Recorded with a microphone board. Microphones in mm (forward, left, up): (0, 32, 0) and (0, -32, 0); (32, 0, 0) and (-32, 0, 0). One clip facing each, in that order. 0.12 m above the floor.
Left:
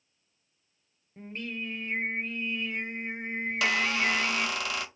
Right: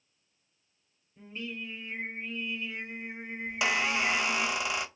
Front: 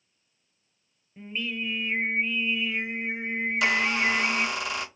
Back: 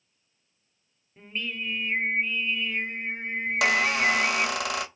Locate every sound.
1.2 s singing: 85° left, 0.7 m
3.5 s a squeak: 160° right, 0.6 m